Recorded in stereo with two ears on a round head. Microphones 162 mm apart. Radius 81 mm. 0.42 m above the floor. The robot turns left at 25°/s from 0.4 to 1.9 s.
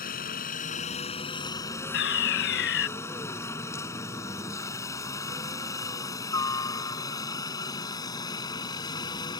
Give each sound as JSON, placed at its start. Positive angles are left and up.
{"t": 0.0, "sound": "a helicopter", "side_deg": 45}
{"t": 1.9, "sound": "a fire alarm", "side_deg": 65}